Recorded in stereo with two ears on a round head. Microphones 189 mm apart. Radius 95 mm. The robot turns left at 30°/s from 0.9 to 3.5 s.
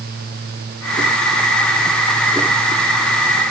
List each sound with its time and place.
Only background noise.